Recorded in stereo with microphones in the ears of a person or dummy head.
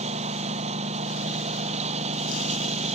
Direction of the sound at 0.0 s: 45° right (ahead or behind).